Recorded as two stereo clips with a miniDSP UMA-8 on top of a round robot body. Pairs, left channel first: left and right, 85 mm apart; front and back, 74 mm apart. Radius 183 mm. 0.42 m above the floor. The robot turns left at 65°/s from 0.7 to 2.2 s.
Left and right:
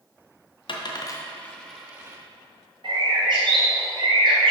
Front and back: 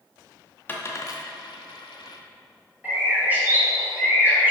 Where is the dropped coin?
65° left, 0.8 m; by 2.2 s 30° right, 0.8 m.